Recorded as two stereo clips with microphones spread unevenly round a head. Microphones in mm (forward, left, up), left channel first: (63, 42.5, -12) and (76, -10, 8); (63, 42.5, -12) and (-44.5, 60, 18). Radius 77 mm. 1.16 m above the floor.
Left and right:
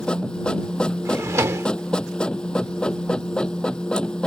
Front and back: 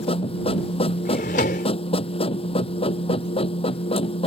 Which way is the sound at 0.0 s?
30° left.